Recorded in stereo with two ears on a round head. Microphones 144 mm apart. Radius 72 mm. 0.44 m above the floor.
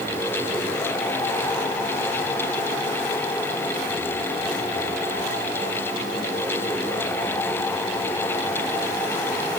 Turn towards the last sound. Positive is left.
No sound to turn to.